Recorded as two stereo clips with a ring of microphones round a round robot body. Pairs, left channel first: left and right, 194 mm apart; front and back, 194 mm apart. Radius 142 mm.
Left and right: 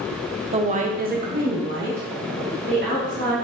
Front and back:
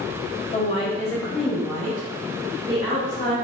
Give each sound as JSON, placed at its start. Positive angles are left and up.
{"t": 0.5, "sound": "a woman speaking", "azimuth_deg": -40, "distance_m": 0.7}